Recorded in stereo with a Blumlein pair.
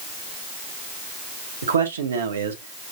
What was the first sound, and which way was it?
A man speaking, 65° right.